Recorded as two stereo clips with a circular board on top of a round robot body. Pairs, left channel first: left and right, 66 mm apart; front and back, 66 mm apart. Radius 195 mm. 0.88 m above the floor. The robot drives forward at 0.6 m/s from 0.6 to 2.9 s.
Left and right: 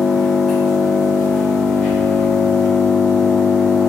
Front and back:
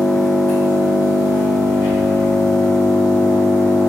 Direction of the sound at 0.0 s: Straight ahead.